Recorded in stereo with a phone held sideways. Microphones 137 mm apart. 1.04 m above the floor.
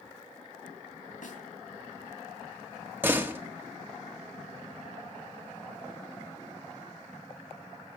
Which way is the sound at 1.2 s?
70° left (ahead or behind).